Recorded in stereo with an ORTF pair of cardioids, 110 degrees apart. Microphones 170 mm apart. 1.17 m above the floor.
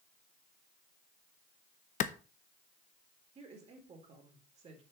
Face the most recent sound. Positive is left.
turn(degrees=-40)